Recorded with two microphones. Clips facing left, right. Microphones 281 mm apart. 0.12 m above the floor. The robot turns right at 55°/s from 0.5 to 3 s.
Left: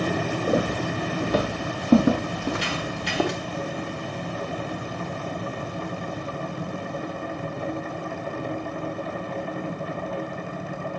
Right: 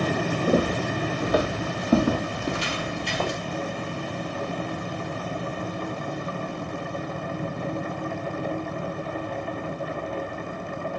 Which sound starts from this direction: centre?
Footsteps, at 0.5 s.